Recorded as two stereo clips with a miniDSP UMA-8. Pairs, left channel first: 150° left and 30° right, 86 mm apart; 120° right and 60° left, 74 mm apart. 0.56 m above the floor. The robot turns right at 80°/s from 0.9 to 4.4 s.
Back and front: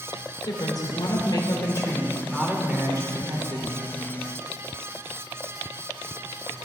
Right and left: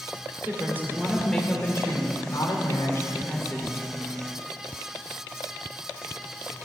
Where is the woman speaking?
120° left, 1.7 m; by 3.9 s 5° right, 1.7 m.